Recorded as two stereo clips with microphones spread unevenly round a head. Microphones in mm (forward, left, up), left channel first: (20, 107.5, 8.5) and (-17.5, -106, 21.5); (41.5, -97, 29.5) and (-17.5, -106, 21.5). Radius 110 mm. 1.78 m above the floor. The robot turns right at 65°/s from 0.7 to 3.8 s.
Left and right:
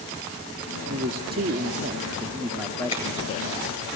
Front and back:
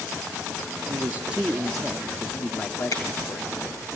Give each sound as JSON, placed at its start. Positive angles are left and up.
{"t": 0.9, "sound": "a man speaking", "azimuth_deg": -125, "distance_m": 0.5}
{"t": 2.9, "sound": "a finger snap", "azimuth_deg": 10, "distance_m": 2.5}